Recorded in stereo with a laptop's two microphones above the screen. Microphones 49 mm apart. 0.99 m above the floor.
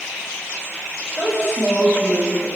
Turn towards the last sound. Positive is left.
turn(degrees=0)  # may be behind; listen again after turning